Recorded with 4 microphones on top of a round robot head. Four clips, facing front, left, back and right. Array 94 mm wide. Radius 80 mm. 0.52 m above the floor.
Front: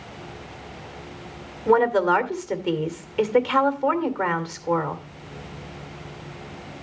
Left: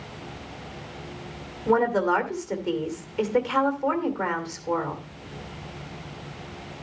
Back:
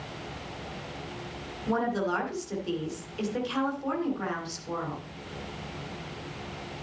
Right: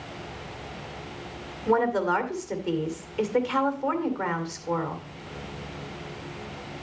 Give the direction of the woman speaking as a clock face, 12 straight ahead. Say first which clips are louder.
Left 2 dB, front 10 dB; 12 o'clock.